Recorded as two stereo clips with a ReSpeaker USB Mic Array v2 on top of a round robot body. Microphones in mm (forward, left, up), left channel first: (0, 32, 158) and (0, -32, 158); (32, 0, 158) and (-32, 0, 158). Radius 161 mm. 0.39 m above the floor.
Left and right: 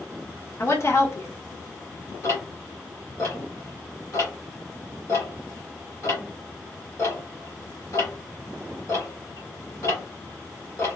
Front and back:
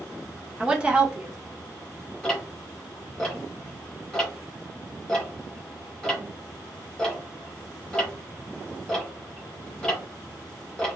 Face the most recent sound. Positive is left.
turn(degrees=80)